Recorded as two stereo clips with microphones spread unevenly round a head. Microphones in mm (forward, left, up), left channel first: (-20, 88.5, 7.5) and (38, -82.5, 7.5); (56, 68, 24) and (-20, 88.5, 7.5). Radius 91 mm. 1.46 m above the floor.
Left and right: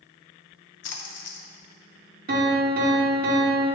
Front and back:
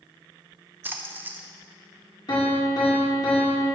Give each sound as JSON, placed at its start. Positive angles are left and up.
{"t": 0.8, "sound": "a splash", "azimuth_deg": 95, "distance_m": 0.8}
{"t": 2.3, "sound": "a piano", "azimuth_deg": -40, "distance_m": 1.6}